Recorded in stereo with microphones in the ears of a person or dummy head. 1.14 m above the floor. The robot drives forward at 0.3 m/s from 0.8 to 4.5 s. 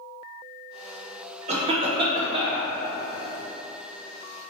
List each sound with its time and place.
1.5 s a cough: 25° right (ahead or behind), 0.5 m; by 2.7 s 20° right (ahead or behind), 0.7 m